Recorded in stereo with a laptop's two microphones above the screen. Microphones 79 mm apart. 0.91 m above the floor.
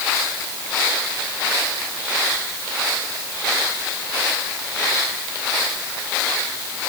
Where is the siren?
No siren in this recording.